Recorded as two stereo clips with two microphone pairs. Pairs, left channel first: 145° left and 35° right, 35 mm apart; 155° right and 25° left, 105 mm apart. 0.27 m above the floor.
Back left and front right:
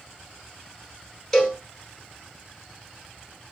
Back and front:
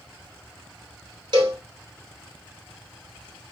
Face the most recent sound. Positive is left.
turn(degrees=70)